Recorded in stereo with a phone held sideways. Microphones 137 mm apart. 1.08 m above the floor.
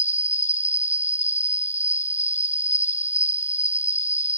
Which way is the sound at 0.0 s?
55° left (ahead or behind).